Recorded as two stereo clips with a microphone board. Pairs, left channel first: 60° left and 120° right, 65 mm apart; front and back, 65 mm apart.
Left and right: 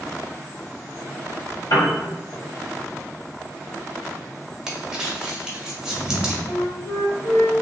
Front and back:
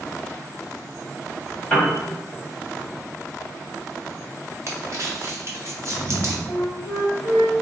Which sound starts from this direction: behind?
Crumpling, at 4.7 s.